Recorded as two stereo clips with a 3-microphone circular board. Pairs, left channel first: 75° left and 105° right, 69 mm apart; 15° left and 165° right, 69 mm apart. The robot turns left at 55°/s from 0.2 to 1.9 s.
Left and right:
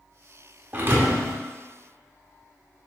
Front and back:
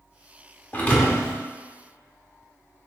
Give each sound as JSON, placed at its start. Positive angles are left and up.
{"t": 0.7, "sound": "a thud", "azimuth_deg": -45, "distance_m": 0.6}